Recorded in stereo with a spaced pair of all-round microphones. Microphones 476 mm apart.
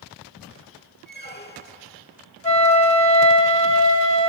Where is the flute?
60° right (ahead or behind), 2.5 m.